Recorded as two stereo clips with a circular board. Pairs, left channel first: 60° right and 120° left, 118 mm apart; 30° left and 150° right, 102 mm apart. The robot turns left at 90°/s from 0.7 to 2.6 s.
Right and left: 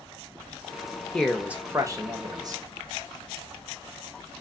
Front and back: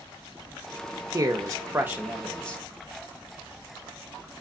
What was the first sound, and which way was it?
A man speaking, 135° right.